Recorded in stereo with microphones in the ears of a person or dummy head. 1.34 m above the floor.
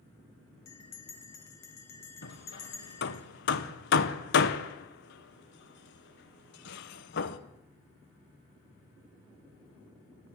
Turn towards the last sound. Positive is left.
turn(degrees=55)  # may be behind; listen again after turning